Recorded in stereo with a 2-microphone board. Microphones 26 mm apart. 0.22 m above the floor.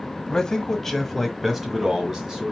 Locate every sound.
0.3 s a man speaking: 25° left (ahead or behind), 1.1 m; by 2.5 s 25° right (ahead or behind), 1.3 m